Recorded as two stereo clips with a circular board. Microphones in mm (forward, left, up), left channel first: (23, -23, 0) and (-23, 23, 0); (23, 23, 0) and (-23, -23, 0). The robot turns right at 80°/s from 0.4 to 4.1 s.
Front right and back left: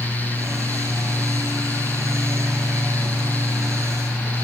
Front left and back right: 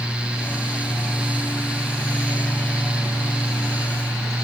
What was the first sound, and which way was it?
Only background noise.